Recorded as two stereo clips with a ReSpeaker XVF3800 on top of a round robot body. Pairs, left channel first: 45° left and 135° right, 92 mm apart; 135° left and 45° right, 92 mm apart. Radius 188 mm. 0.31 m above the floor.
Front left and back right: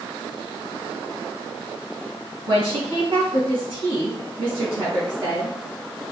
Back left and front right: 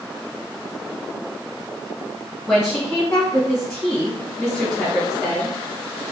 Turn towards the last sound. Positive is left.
turn(degrees=-150)